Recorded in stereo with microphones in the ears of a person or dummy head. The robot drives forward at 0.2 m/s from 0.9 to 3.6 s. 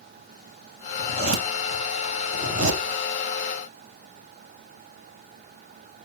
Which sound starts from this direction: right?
A zipper, at 1.0 s.